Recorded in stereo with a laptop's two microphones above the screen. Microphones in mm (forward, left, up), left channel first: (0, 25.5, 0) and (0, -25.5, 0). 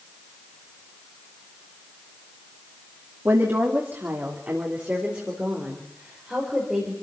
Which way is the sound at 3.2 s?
55° right (ahead or behind).